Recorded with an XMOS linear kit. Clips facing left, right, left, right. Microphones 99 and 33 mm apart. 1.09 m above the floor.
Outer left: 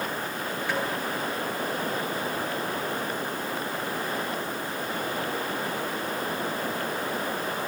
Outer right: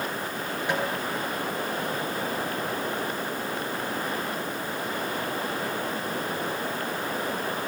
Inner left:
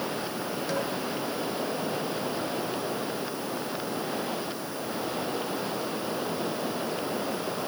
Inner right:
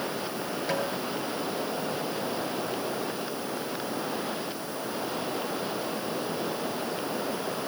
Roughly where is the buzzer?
I don't hear a buzzer.